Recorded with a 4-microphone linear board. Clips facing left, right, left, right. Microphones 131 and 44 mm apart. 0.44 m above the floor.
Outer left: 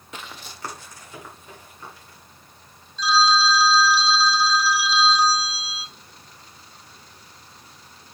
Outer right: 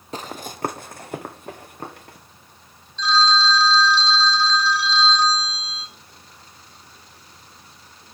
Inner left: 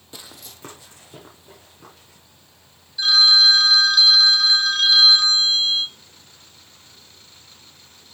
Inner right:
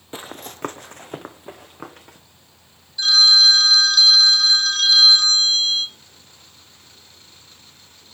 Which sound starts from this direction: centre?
A phone ringing, at 3.0 s.